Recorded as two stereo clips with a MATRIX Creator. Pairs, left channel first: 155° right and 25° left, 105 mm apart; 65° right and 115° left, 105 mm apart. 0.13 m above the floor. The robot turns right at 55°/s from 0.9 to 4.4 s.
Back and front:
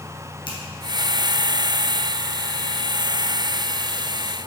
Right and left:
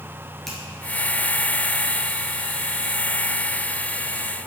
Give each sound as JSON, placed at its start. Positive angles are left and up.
{"t": 0.5, "sound": "a finger snap", "azimuth_deg": -155, "distance_m": 2.0}